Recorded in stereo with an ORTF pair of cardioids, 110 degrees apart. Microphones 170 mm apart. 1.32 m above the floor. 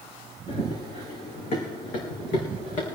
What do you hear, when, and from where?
0.5 s running footsteps: 40° left, 4.5 m; by 3.0 s 60° left, 5 m